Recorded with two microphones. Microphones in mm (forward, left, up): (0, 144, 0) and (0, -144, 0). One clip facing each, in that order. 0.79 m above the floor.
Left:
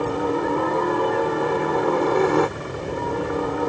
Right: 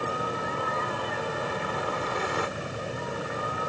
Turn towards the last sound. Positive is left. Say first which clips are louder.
# left 10 dB
turn(degrees=60)  # may be behind; listen again after turning